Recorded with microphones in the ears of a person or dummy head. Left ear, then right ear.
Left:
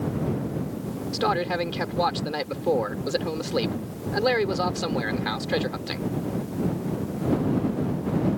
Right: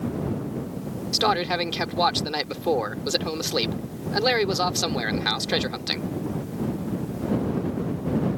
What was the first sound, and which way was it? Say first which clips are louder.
A man speaking: right 2 dB; 30° right (ahead or behind).